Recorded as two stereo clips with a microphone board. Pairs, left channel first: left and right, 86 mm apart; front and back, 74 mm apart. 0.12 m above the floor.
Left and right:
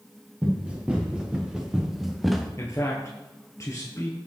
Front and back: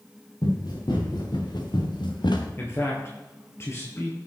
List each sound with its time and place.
0.4 s running footsteps: 15° right, 4 m; by 2.5 s straight ahead, 1.8 m
2.6 s a man speaking: 45° left, 2.0 m